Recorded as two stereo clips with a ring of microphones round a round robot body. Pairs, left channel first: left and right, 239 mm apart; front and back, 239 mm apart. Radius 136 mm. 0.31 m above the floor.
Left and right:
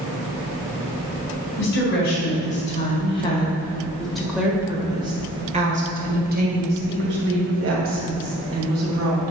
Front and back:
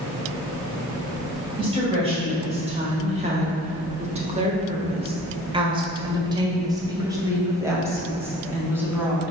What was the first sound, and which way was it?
A woman speaking, 120° left.